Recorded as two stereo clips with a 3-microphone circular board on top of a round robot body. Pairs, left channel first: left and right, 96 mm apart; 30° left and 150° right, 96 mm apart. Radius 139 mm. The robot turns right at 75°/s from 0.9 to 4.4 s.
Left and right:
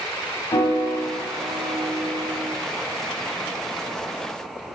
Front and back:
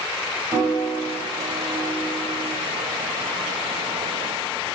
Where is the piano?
150° left, 6.5 m; by 2.5 s 95° right, 6.5 m.